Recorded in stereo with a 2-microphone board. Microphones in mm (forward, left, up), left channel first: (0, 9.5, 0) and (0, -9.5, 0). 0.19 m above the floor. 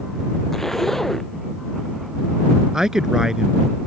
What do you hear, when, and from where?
0.5 s a zipper: 15° left (ahead or behind)
2.7 s a man speaking: 35° right (ahead or behind)